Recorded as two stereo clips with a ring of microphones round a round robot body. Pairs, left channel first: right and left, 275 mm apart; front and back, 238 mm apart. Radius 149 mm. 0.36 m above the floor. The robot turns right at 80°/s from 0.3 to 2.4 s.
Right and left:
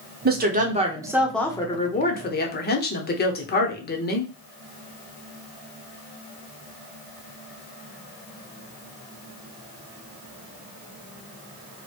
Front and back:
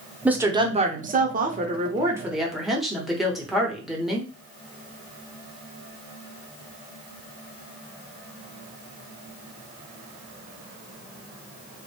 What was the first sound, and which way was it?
A woman speaking, 100° left.